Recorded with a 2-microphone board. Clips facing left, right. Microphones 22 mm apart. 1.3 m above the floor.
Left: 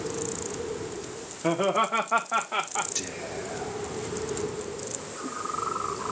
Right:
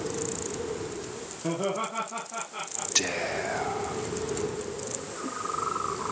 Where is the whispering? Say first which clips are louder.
Right 6 dB; 40° right (ahead or behind), 0.6 m.